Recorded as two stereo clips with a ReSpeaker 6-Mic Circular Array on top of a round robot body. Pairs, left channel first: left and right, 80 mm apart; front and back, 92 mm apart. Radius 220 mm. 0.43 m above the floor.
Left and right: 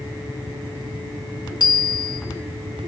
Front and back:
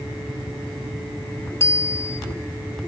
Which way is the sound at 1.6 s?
65° left.